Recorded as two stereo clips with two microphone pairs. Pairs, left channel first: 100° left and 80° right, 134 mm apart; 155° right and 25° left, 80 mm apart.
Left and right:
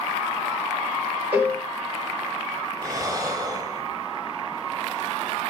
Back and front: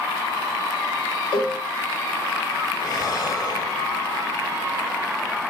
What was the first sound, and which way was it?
A cowbell, 160° right.